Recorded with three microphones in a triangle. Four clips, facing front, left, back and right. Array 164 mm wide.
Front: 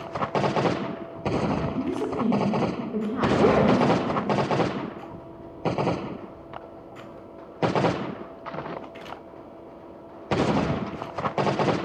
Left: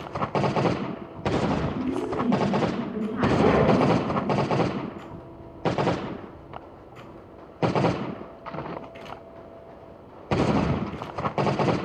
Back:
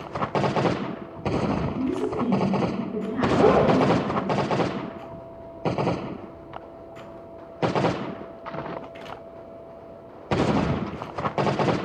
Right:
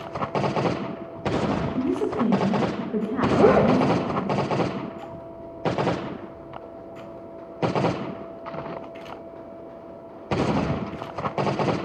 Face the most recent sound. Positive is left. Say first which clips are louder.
# right 3 dB, back 2 dB
turn(degrees=-100)